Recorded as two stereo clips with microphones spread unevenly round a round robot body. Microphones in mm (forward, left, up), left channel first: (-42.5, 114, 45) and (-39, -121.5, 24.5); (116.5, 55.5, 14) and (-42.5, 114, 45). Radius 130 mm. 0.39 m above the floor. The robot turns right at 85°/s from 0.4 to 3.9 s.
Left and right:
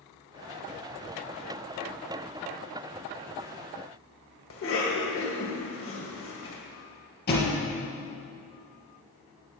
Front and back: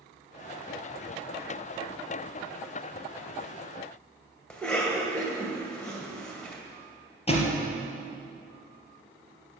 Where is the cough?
60° left, 2 m.